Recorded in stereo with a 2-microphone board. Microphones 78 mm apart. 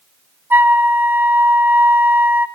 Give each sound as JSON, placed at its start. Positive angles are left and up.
{"t": 0.5, "sound": "a flute", "side_deg": -30, "distance_m": 1.0}